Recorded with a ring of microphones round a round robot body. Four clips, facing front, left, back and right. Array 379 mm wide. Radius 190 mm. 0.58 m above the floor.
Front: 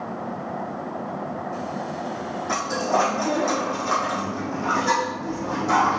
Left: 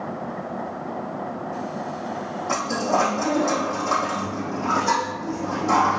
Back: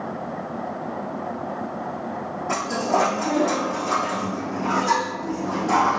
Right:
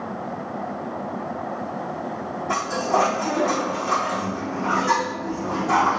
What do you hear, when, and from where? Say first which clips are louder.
2.5 s a dropped coin: even, back 1 dB; 75° left, 3.5 m